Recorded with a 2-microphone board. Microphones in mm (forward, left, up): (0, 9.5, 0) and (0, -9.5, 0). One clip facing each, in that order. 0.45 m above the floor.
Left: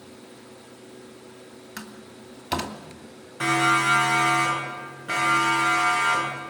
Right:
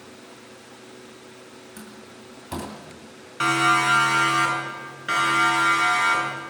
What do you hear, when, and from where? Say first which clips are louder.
1.8 s a door slam: left 4 dB; 55° left (ahead or behind), 2.5 m
3.4 s a siren: right 1 dB; 40° right (ahead or behind), 7.5 m; by 6.4 s 55° right (ahead or behind), 10.5 m